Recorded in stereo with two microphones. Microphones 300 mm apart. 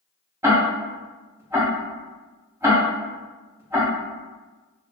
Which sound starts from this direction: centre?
Ticking, at 0.4 s.